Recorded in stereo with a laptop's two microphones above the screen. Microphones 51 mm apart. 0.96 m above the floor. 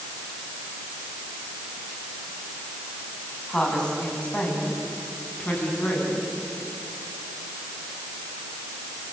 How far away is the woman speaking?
About 8 m.